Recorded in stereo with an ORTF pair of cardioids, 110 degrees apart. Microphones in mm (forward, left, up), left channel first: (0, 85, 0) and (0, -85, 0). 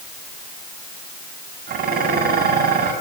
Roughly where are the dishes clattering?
Ahead right.